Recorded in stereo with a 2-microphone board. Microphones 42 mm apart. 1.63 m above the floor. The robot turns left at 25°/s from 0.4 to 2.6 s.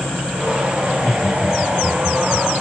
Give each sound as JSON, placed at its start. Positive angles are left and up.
{"t": 0.8, "sound": "laughter", "side_deg": 70, "distance_m": 7.5}